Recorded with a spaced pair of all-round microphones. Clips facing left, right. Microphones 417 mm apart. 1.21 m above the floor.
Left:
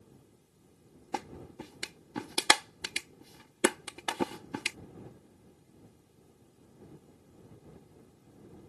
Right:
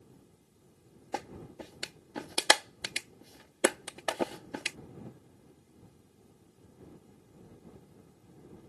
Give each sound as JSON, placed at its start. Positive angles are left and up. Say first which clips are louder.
{"t": 1.1, "sound": "a clap", "louder": "even", "side_deg": 20}